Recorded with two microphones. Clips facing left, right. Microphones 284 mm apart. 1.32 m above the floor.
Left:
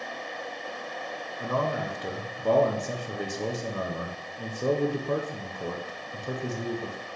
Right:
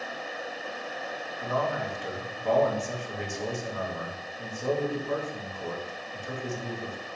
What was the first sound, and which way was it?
A man speaking, 45° left (ahead or behind).